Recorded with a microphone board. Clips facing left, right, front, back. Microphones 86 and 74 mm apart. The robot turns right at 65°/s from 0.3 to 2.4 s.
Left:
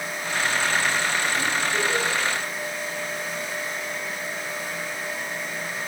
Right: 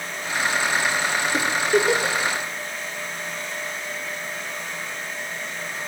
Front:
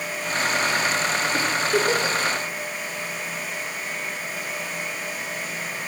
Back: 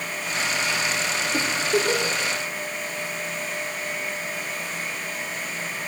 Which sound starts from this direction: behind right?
A giggle, at 1.3 s.